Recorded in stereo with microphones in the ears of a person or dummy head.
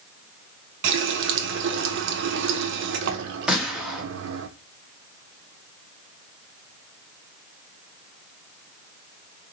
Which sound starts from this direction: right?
A running tap, at 0.8 s.